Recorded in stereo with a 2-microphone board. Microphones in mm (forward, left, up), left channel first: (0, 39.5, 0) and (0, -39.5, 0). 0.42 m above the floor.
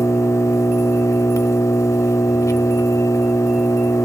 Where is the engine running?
45° left (ahead or behind), 0.9 m.